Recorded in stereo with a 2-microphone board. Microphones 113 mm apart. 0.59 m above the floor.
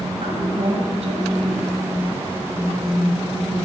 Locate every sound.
0.2 s a woman speaking: 70° right (ahead or behind), 3 m